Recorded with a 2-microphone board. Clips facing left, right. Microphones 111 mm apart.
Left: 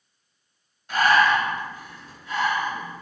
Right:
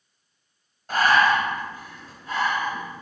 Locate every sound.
0.9 s breathing: 45° right (ahead or behind), 1.1 m